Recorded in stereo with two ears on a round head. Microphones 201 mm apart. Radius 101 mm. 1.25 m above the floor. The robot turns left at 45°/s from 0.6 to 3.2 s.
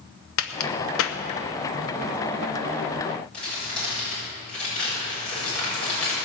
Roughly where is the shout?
No shout in this recording.